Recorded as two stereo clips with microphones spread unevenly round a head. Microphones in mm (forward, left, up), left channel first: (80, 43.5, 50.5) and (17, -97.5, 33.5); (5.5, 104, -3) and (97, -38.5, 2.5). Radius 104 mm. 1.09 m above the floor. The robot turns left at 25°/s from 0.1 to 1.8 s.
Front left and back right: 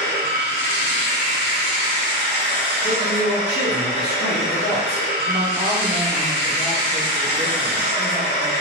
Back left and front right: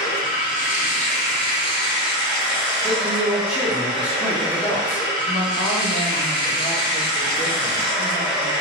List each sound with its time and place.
0.0 s running water: 105° left, 1.0 m; by 8.6 s 60° left, 1.0 m
2.8 s a man speaking: 35° left, 0.8 m
5.2 s a woman speaking: 55° right, 1.4 m